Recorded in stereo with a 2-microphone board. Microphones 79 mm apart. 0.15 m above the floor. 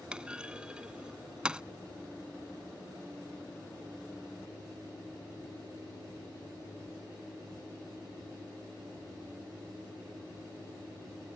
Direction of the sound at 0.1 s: 10° right (ahead or behind).